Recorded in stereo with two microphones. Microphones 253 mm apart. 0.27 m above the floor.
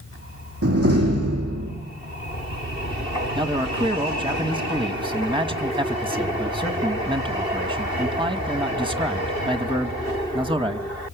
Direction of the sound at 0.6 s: 60° right (ahead or behind).